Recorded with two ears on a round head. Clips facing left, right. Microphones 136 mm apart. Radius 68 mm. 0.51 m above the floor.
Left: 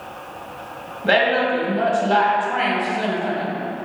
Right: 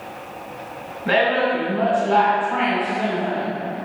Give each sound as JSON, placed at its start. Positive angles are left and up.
{"t": 1.0, "sound": "a woman speaking", "side_deg": 50, "distance_m": 1.7}